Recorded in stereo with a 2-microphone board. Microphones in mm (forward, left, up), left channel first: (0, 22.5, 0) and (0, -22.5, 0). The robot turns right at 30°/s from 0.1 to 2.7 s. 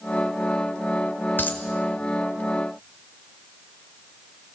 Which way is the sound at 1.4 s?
50° left (ahead or behind).